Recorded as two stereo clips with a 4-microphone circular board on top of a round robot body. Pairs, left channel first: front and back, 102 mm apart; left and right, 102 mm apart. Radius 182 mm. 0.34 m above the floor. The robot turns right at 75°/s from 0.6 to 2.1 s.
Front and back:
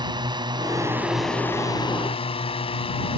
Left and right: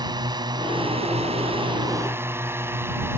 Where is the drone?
135° right; by 3.2 s 25° right.